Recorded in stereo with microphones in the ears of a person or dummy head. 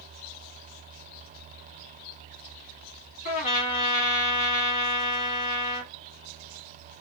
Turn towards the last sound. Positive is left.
turn(degrees=45)  # may be behind; listen again after turning